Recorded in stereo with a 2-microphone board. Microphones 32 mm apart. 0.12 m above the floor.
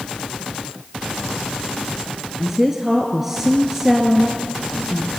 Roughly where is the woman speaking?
Centre.